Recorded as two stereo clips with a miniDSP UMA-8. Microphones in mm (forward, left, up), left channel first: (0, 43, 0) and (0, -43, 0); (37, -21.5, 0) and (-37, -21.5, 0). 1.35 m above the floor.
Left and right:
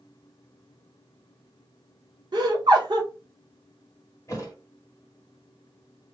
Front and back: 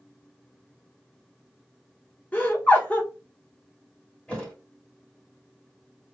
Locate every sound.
2.3 s laughter: 65° right, 0.9 m
4.3 s a thud: 65° left, 1.3 m